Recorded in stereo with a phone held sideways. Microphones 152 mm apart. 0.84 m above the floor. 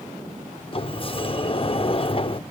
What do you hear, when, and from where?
0.7 s a sliding door: 40° left (ahead or behind), 0.5 m